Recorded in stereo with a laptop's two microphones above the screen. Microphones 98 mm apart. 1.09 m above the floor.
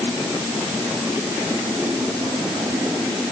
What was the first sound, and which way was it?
Only background noise.